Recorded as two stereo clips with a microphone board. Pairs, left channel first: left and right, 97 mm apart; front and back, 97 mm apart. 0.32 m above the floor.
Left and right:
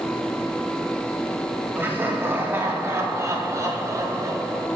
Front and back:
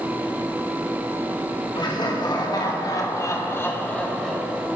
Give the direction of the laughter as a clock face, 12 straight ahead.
1 o'clock.